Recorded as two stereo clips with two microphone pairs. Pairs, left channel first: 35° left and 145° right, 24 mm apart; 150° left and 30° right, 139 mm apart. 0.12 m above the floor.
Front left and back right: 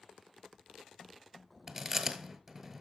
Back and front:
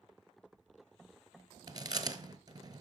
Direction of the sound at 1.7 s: 75° right.